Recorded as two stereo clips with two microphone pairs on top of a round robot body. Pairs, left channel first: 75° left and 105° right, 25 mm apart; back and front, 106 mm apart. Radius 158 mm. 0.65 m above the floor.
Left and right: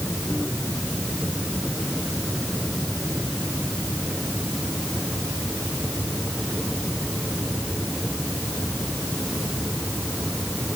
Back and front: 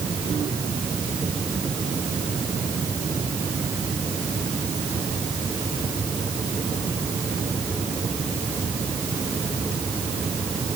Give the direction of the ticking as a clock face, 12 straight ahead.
No ticking in this recording.